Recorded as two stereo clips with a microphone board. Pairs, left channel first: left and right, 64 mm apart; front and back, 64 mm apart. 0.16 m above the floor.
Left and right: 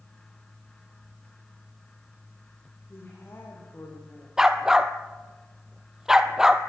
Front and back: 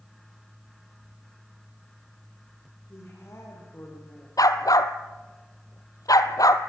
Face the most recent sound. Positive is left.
turn(degrees=-10)